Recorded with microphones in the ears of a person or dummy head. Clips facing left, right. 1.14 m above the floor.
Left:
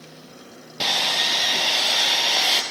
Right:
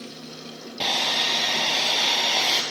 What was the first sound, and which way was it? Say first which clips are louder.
Sawing: left 1 dB; 5° left (ahead or behind).